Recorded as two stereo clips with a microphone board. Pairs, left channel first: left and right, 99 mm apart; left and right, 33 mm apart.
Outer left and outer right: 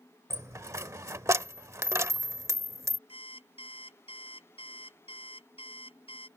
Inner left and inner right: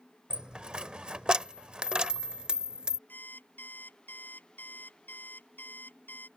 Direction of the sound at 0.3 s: 30° right (ahead or behind).